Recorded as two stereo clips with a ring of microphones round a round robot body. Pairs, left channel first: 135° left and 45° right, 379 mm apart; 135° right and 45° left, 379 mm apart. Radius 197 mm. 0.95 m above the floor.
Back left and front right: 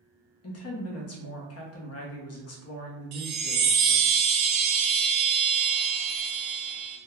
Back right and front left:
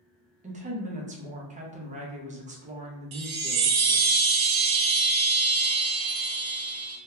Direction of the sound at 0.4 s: 105° left.